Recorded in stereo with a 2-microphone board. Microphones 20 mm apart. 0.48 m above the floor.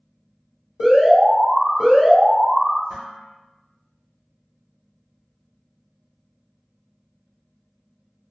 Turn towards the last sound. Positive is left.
turn(degrees=-55)  # may be behind; listen again after turning